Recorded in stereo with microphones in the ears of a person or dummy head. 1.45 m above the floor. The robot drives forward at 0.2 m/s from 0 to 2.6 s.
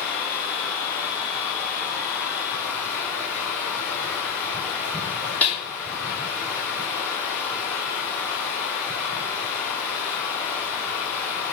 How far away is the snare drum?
About 2.5 m.